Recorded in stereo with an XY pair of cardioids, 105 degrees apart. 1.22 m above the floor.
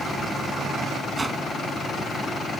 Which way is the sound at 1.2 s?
25° right.